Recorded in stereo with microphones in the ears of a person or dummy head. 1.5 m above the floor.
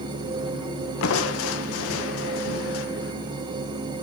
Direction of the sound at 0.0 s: 25° right (ahead or behind).